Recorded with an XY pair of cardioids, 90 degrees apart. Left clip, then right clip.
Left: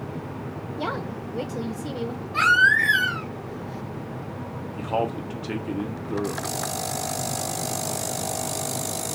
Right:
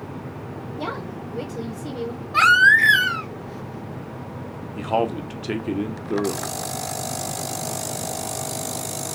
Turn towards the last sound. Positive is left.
turn(degrees=-40)